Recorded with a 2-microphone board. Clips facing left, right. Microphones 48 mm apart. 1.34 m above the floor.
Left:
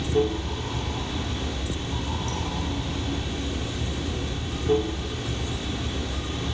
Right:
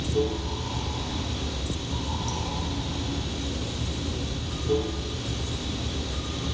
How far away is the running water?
About 1.9 m.